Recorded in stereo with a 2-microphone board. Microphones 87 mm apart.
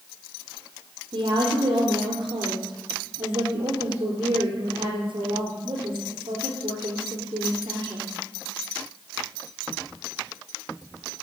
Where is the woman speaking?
55° right (ahead or behind), 4 m.